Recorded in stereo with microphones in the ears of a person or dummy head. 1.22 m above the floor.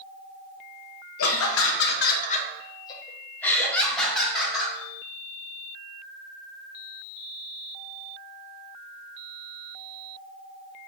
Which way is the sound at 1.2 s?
65° left (ahead or behind).